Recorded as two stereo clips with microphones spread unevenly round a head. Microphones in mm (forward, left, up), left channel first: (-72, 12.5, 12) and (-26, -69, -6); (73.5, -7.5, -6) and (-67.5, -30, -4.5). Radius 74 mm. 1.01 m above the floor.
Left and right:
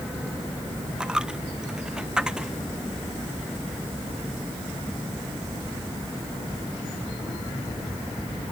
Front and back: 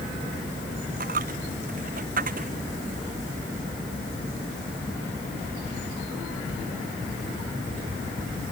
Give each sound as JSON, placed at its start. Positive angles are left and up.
{"t": 1.0, "sound": "a dropped coin", "azimuth_deg": -145}